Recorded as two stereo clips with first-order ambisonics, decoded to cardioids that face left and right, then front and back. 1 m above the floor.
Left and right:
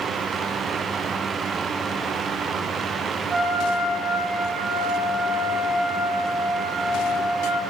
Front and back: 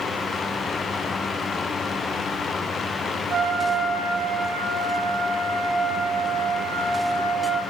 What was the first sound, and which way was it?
A trumpet, 150° right.